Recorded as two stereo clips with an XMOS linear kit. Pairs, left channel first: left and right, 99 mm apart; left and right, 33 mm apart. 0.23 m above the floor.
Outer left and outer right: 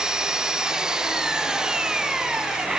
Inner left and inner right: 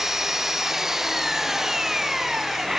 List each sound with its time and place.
0.0 s an engine running: 10° right (ahead or behind)